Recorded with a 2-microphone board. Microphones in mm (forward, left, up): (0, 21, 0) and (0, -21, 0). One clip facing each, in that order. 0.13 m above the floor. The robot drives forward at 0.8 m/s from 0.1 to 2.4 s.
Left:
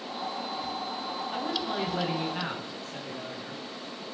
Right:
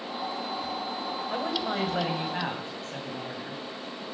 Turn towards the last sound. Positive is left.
turn(degrees=-50)  # may be behind; listen again after turning